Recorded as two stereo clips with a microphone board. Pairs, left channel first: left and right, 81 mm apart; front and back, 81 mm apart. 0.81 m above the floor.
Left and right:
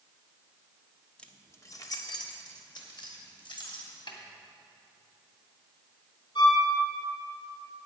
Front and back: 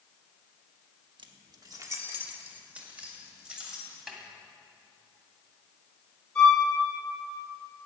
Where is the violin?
85° left, 5.5 m.